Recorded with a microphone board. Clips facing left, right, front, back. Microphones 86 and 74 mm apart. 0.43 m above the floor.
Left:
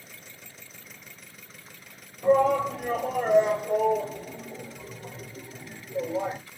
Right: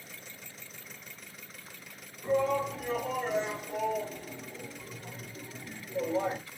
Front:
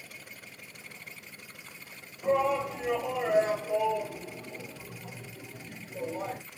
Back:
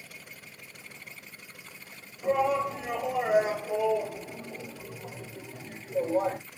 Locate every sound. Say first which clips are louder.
2.2 s a shout: left 7 dB, back 1 dB; 95° left, 2.5 m; by 6.4 s 175° left, 1.5 m